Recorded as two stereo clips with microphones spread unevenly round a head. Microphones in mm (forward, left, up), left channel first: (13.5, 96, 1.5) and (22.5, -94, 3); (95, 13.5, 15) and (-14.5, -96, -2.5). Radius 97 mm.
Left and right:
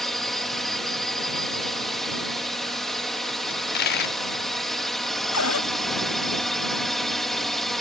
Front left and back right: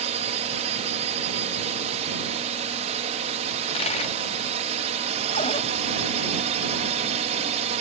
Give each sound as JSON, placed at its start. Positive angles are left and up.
{"t": 0.0, "sound": "a drone", "azimuth_deg": 180}
{"t": 3.5, "sound": "a dropped coin", "azimuth_deg": 80}
{"t": 5.3, "sound": "a cupboard door", "azimuth_deg": 110}